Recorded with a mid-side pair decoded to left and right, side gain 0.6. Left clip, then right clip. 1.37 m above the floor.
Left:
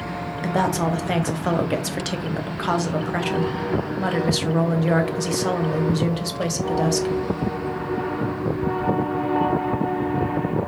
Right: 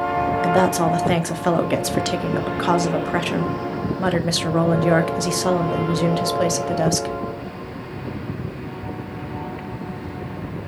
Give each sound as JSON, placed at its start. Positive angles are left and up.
{"t": 0.4, "sound": "a woman speaking", "azimuth_deg": -20, "distance_m": 0.5}